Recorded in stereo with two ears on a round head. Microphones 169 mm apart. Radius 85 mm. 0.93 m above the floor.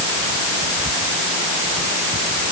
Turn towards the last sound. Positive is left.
No sound to turn to.